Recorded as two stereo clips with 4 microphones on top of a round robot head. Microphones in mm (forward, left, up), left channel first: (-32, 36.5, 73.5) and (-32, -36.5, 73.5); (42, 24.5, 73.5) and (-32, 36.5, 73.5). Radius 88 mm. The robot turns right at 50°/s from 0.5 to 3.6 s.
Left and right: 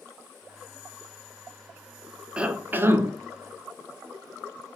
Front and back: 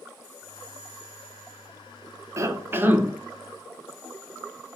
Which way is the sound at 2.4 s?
165° right.